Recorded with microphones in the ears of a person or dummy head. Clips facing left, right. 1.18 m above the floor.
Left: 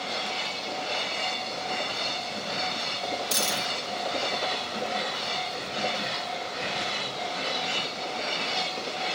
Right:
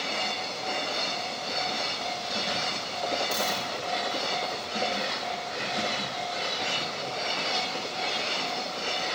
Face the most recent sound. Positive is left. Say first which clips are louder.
# right 1 dB
turn(degrees=35)  # may be behind; listen again after turning